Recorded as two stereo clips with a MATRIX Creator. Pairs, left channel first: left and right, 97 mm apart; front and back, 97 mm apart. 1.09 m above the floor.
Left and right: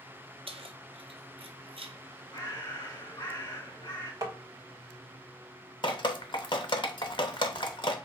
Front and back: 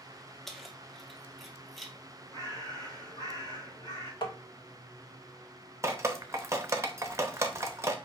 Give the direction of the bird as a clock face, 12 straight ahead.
10 o'clock.